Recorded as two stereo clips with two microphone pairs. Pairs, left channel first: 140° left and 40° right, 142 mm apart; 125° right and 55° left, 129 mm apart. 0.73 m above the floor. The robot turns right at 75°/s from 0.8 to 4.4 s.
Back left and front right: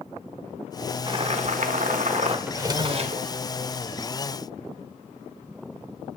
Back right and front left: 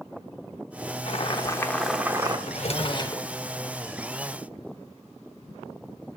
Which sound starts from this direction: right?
Boiling, at 1.1 s.